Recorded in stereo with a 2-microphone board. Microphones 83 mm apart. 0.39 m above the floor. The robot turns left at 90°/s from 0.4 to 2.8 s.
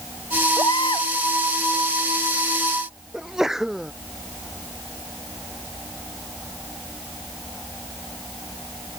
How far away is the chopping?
No chopping in this recording.